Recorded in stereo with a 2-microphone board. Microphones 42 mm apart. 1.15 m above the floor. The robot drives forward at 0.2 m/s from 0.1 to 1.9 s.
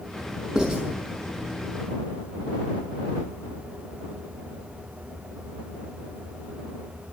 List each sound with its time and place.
0.6 s writing: 10° right (ahead or behind), 5.5 m